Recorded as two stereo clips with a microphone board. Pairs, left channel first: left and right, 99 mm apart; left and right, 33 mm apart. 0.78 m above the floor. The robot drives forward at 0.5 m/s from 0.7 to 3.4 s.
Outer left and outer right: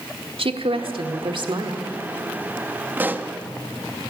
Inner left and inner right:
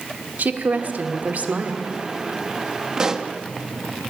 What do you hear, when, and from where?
0.4 s a woman speaking: 70° right (ahead or behind), 1.5 m; by 1.8 s 55° right (ahead or behind), 1.8 m
3.0 s a pop: 20° right (ahead or behind), 0.8 m; by 3.3 s 15° right (ahead or behind), 0.9 m